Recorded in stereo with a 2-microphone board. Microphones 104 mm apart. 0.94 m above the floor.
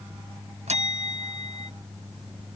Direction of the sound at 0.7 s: 80° right.